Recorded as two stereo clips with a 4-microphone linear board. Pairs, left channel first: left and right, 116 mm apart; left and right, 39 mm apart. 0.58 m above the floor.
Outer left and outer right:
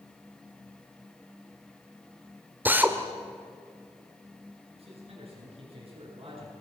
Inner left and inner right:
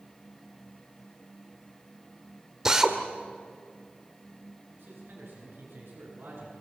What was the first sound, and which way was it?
A drill, 15° right (ahead or behind).